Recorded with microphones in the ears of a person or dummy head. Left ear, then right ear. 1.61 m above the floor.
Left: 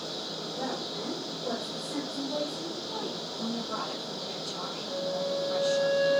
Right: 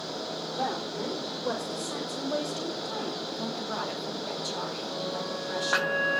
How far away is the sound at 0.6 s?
About 4.5 m.